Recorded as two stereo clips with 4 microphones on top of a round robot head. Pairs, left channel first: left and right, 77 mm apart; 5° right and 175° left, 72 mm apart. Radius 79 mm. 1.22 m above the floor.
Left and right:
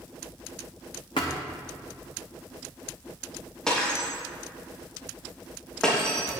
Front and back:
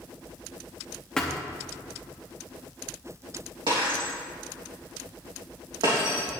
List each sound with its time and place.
1.2 s a thud: 70° left, 0.7 m
3.7 s breaking glass: 170° left, 3.5 m